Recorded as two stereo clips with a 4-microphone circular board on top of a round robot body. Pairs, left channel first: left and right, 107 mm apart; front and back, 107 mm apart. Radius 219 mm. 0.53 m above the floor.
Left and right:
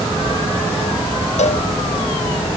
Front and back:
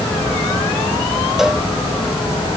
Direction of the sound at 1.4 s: 95° left.